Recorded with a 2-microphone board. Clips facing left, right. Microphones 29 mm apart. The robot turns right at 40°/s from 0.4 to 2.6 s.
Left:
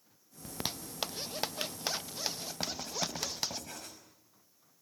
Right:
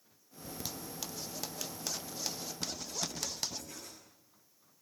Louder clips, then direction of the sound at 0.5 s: Left 3 dB; 45° left (ahead or behind).